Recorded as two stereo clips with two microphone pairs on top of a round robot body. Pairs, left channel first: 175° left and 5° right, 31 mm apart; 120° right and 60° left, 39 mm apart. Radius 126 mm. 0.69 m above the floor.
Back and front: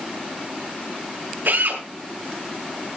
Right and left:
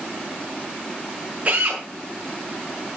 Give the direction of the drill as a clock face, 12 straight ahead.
12 o'clock.